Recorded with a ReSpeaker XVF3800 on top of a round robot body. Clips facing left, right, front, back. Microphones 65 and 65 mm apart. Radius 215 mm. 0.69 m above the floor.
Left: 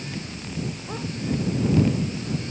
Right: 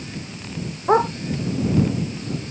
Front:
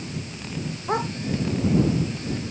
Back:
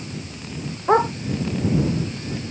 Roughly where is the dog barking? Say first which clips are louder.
Right 16 dB, back 9 dB; behind right.